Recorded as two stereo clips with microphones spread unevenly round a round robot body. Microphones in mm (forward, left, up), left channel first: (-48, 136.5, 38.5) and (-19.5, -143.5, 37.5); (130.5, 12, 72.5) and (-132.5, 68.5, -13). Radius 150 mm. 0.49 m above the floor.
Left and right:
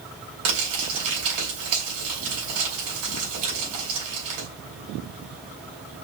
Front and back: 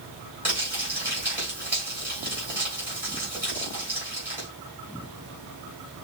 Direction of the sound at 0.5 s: 115° right.